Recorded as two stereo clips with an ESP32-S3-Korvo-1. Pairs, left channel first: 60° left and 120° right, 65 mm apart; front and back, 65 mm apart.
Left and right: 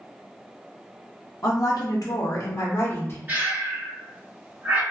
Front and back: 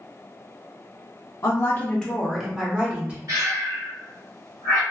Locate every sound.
1.4 s a woman speaking: 35° left, 0.6 m; by 3.2 s 115° left, 1.2 m
3.3 s breathing: 175° right, 1.5 m